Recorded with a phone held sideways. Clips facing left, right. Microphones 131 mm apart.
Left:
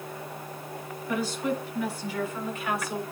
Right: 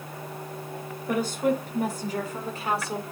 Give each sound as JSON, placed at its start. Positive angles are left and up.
{"t": 1.1, "sound": "a woman speaking", "side_deg": -55, "distance_m": 5.0}